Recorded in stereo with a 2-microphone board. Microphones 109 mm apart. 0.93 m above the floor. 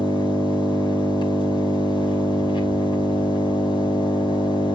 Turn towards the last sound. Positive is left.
turn(degrees=45)  # may be behind; listen again after turning